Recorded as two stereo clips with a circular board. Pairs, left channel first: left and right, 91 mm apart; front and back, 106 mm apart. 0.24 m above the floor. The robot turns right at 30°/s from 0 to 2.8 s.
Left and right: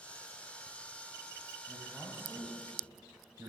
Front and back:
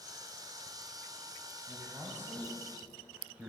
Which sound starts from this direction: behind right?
A man speaking, at 1.7 s.